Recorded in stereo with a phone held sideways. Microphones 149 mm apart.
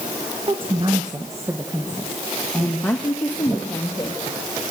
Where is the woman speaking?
40° right (ahead or behind), 1.7 m; by 4.2 s 20° left (ahead or behind), 3 m.